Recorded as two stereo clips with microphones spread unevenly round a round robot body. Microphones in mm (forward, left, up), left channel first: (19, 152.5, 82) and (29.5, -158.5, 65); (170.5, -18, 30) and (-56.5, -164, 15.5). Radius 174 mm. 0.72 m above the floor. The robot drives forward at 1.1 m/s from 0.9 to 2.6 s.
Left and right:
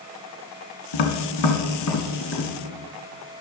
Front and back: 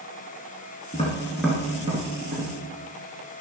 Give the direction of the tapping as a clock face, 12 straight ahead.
9 o'clock.